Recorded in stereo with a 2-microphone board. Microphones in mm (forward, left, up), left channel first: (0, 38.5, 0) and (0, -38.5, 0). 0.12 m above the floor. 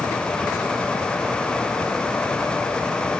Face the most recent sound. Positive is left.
No sound to turn to.